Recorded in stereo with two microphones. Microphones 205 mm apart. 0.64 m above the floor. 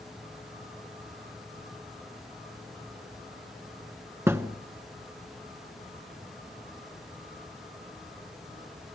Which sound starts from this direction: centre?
A thud, at 4.3 s.